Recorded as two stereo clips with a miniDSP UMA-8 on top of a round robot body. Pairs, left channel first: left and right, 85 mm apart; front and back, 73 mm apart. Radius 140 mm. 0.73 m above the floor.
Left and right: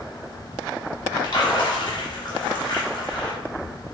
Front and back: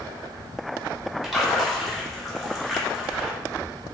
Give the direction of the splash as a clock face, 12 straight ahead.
9 o'clock.